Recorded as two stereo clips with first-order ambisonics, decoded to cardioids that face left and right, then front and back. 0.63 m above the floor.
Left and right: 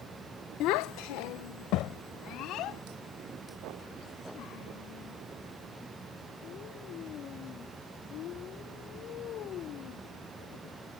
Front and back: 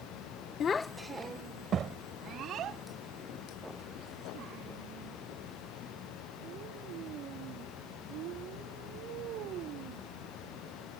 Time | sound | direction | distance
0.6 | a child speaking | 55° left | ?